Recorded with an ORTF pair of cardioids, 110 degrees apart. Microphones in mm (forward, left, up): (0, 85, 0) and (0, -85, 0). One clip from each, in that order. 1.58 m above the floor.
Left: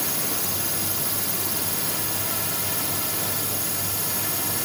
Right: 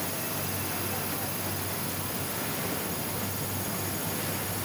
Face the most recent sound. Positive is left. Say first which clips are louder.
# left 5 dB
turn(degrees=60)